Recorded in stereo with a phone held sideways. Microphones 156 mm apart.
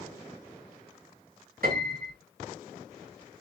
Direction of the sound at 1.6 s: 75° right (ahead or behind).